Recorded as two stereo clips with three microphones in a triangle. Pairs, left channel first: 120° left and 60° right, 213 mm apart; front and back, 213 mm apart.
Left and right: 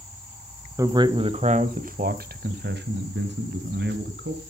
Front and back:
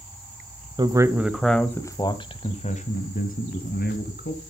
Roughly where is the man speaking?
Behind right.